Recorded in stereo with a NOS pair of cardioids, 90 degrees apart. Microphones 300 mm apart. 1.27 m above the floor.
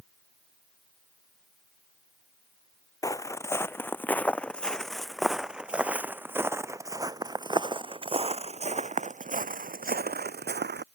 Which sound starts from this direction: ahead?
Footsteps, at 3.0 s.